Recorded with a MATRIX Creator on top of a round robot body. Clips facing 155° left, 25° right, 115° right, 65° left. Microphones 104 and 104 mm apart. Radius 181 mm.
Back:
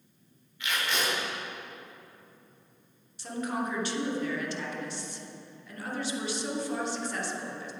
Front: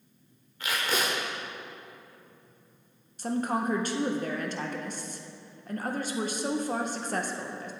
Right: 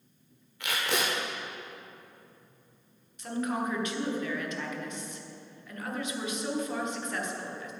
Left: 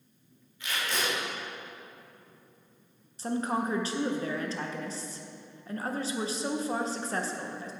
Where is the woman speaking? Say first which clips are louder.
Front 4 dB, left 1 dB; 15° left, 1.4 m.